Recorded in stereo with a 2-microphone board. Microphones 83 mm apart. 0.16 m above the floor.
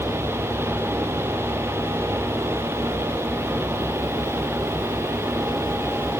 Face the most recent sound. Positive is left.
No sound to turn to.